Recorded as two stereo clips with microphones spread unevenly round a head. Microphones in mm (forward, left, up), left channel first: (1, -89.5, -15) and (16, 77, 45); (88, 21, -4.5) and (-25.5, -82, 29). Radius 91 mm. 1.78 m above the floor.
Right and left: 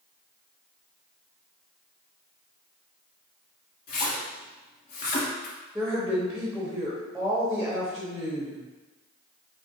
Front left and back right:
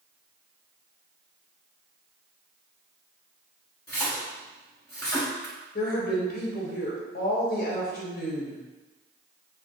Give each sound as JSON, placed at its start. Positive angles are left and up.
{"t": 3.9, "sound": "a splash", "azimuth_deg": -45, "distance_m": 1.8}
{"t": 5.8, "sound": "a woman speaking", "azimuth_deg": 25, "distance_m": 0.8}